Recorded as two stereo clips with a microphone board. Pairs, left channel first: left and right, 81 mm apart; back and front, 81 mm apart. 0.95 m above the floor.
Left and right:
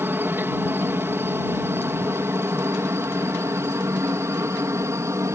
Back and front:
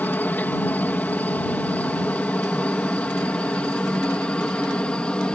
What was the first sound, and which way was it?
A helicopter, 130° right.